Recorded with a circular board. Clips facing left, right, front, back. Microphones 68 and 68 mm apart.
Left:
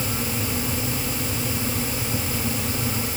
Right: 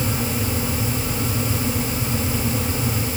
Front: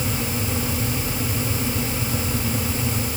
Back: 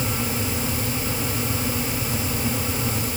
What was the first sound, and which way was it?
Only background noise.